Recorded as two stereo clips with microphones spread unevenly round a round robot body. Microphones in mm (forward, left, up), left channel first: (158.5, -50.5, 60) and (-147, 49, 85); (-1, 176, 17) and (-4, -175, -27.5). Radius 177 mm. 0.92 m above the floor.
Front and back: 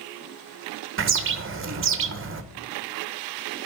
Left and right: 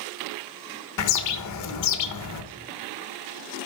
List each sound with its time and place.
1.0 s a bird: 120° left, 1.2 m